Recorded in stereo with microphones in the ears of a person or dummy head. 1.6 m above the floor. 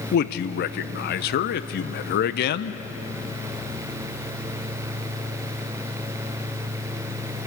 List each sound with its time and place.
0.1 s a man speaking: 60° left (ahead or behind), 0.8 m